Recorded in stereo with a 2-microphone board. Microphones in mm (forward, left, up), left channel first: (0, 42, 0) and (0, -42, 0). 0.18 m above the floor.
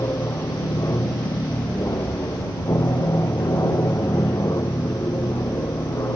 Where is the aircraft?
35° left (ahead or behind).